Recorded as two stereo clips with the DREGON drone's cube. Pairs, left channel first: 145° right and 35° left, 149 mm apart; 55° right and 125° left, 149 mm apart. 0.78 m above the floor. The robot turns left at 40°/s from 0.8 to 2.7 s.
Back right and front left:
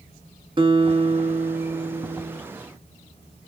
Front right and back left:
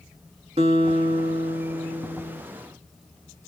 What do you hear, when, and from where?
0.6 s a guitar: 80° left, 1.4 m; by 2.4 s 20° left, 1.4 m